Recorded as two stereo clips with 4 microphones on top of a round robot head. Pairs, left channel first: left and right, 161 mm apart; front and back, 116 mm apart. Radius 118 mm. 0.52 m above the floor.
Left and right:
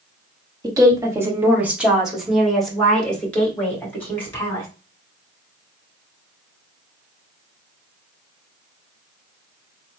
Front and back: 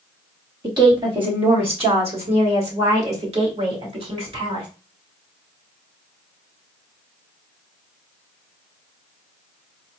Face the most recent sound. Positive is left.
turn(degrees=165)